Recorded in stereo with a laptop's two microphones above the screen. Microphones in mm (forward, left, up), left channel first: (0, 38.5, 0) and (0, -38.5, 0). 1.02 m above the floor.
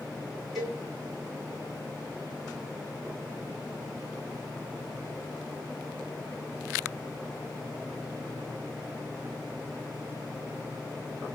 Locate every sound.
0.6 s a cowbell: 5° right (ahead or behind), 3 m